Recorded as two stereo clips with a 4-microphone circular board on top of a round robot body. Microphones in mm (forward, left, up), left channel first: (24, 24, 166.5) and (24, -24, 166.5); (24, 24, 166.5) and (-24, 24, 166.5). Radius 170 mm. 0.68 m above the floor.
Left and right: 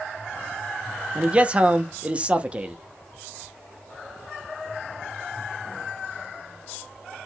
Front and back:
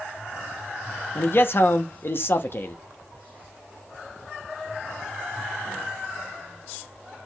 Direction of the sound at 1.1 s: 30° right.